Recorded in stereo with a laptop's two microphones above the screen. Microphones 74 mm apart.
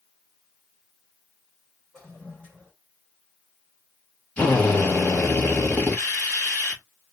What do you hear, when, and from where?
1.9 s a toilet flushing: 10° left (ahead or behind), 2.5 m
4.4 s a drill: 15° left (ahead or behind), 1.5 m